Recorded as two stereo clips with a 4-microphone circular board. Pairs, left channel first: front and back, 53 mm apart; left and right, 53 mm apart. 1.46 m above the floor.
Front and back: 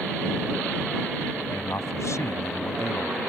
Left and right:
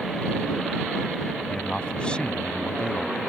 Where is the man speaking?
20° left.